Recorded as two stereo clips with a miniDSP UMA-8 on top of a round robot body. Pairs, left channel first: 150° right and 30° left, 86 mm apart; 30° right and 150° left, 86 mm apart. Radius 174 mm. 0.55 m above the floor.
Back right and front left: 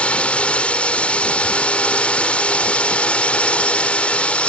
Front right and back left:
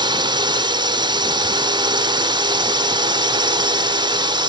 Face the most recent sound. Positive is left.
turn(degrees=135)